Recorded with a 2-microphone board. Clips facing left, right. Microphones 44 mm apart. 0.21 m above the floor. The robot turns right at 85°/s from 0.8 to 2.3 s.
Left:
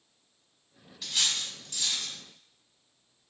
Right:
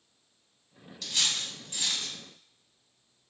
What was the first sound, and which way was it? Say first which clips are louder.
Cutlery clinking: even; 10° left (ahead or behind).